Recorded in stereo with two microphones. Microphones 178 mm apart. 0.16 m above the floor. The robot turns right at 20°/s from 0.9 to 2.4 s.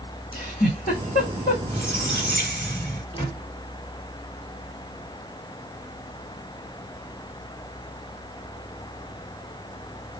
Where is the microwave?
25° left (ahead or behind), 1.3 m.